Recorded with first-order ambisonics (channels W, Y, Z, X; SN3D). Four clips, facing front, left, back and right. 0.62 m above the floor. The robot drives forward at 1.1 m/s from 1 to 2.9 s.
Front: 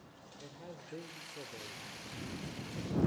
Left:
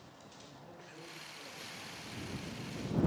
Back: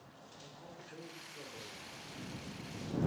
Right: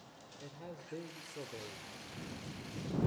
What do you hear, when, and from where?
0.4 s a man speaking: 55° right, 2.5 m; by 2.2 s 95° right, 2 m